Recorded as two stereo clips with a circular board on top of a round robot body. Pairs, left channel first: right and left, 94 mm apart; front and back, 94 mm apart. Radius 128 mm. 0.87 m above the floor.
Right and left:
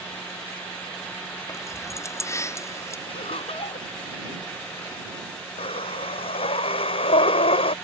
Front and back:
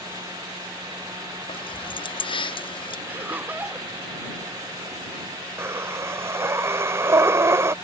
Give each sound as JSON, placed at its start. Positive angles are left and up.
{"t": 1.5, "sound": "keys jangling", "azimuth_deg": -30}
{"t": 3.1, "sound": "laughter", "azimuth_deg": -110}
{"t": 5.6, "sound": "breathing", "azimuth_deg": -115}